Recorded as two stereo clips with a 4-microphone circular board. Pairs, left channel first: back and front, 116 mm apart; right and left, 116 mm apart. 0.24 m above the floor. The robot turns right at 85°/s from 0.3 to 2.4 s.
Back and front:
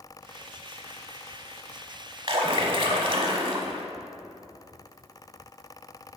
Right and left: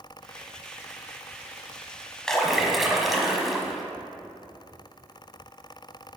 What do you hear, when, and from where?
2.3 s a splash: 10° right, 0.8 m; by 3.8 s straight ahead, 0.8 m